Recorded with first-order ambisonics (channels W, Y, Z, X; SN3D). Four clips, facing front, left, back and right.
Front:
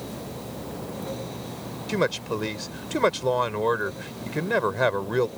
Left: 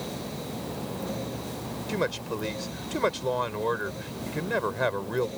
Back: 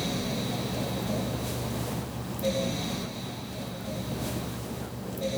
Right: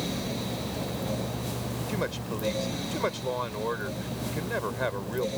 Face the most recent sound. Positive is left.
turn(degrees=10)